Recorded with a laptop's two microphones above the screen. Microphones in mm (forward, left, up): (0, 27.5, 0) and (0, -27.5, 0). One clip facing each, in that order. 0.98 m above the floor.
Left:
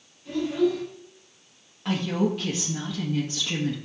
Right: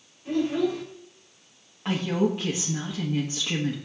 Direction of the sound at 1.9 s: 15° right (ahead or behind).